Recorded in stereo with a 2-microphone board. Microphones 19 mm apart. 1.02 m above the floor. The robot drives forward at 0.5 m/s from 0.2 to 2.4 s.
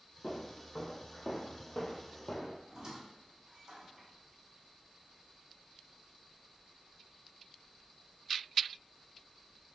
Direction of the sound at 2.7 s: 20° right (ahead or behind).